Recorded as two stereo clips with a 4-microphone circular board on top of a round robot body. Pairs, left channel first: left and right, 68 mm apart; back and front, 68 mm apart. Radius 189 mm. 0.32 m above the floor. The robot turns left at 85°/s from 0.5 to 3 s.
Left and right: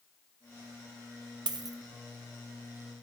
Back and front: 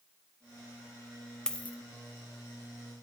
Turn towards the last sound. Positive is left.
turn(degrees=130)